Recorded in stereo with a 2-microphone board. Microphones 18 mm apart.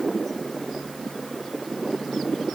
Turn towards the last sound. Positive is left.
No sound to turn to.